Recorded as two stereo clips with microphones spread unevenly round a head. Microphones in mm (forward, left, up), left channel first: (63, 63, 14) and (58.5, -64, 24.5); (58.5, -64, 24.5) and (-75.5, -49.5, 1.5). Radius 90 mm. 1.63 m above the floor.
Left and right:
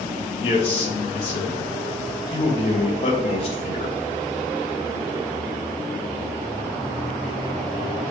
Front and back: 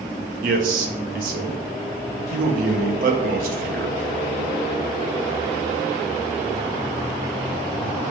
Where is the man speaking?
145° left, 0.7 m.